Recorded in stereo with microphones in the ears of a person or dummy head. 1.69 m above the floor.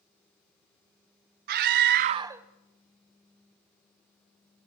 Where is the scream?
50° right (ahead or behind), 0.9 m; by 4.7 s 30° left (ahead or behind), 3 m.